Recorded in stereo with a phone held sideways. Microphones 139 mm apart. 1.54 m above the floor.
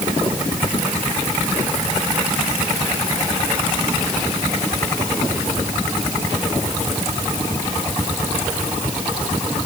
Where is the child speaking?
I don't hear a child speaking.